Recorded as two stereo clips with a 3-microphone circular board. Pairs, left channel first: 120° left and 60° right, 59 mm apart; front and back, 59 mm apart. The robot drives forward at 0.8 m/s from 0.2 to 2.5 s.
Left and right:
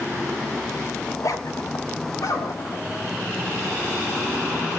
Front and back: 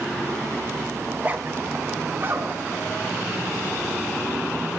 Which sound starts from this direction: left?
A zipper, at 1.1 s.